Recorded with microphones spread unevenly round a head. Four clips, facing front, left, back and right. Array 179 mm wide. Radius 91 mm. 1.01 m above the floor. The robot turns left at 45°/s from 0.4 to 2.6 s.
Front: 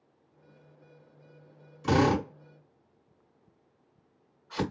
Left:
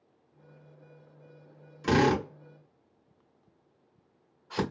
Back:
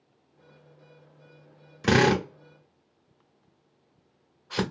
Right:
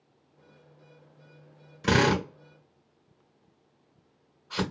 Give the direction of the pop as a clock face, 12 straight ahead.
I don't hear a pop.